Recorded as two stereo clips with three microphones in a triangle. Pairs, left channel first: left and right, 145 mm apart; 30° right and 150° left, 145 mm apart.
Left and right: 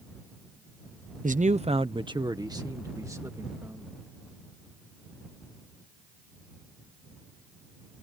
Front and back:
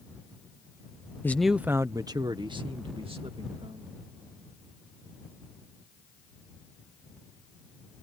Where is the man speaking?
105° right; by 4.0 s 160° right.